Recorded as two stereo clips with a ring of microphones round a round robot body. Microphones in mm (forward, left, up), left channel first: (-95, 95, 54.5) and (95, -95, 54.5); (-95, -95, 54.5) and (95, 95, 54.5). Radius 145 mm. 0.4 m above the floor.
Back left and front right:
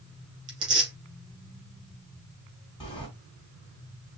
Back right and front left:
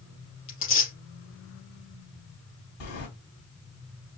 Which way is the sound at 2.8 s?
150° right.